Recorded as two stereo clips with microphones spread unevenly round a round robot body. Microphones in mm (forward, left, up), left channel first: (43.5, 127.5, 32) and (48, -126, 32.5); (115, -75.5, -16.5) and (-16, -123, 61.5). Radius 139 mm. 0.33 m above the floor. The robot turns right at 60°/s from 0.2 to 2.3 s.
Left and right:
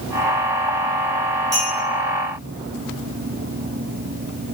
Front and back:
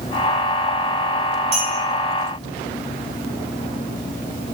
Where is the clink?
165° right, 3 m; by 1.7 s 155° right, 3 m.